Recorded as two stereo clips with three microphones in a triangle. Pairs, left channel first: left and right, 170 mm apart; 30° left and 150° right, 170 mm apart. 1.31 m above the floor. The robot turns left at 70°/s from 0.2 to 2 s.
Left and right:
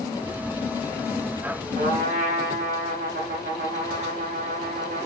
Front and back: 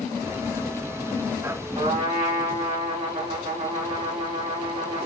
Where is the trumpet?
85° right, 1.3 m; by 5.1 s 100° right, 1.3 m.